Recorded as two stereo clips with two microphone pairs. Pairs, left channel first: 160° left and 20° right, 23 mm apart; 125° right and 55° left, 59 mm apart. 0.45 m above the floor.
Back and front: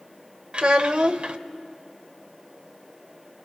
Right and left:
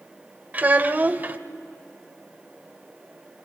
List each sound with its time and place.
0.5 s a child speaking: straight ahead, 1.0 m